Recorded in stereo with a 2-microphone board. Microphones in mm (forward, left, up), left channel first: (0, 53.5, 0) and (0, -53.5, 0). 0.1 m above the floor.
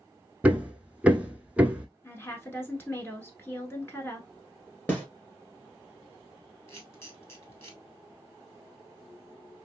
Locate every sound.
0.4 s hammering: 15° right (ahead or behind), 0.8 m
2.0 s a woman speaking: 20° left (ahead or behind), 1.1 m
4.9 s a snare drum: 15° left (ahead or behind), 1.5 m
6.7 s a camera shutter: 25° left (ahead or behind), 1.5 m